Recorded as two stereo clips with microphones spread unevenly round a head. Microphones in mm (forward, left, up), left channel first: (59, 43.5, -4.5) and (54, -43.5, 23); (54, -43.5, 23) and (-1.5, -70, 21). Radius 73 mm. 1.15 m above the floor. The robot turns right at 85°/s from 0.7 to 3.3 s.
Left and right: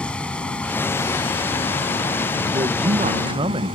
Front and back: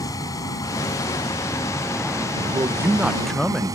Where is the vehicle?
5° left; by 3.8 s 135° right.